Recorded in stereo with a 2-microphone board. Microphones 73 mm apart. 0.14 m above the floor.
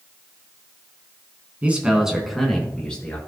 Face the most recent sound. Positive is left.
turn(degrees=15)  # may be behind; listen again after turning